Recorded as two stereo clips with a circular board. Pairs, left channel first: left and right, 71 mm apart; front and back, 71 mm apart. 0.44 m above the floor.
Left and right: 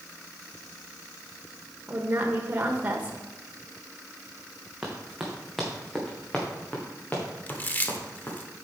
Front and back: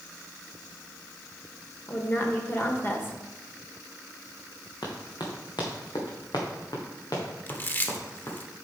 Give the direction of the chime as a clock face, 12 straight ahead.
I don't hear a chime.